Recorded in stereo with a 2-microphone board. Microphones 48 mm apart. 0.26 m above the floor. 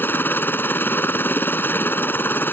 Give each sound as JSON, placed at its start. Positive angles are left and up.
{"t": 0.0, "sound": "a helicopter", "side_deg": 45}